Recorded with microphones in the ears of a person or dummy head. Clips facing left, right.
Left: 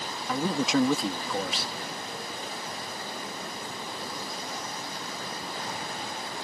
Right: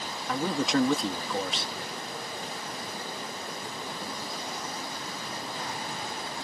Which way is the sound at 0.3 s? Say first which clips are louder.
Left 1 dB; centre (ahead or behind).